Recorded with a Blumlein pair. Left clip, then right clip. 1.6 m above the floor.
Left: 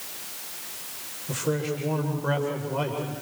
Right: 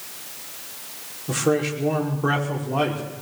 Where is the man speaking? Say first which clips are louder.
Right 6 dB; 35° right, 6 m.